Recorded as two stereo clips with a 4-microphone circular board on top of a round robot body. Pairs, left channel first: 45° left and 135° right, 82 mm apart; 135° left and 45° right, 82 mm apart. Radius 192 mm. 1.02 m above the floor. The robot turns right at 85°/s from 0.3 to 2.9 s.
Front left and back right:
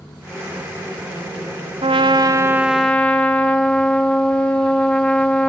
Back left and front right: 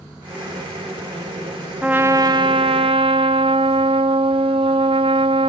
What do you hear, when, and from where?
1.8 s a trumpet: 125° right, 0.7 m; by 5.5 s 35° right, 0.7 m